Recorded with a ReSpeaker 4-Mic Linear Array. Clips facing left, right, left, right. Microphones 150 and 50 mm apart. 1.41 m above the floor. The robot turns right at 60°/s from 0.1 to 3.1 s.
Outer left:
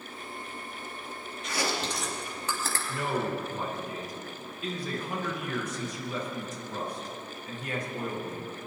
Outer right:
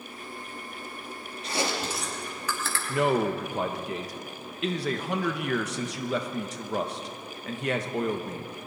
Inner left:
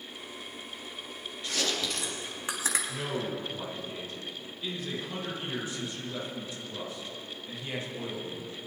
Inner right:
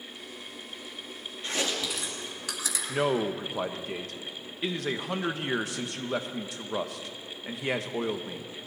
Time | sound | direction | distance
1.4 | chewing | 35° right (ahead or behind) | 2.5 m
2.9 | a man speaking | 85° right | 1.5 m